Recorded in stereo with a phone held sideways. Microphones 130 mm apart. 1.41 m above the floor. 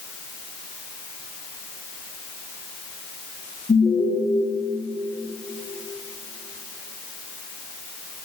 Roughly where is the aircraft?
I don't hear an aircraft.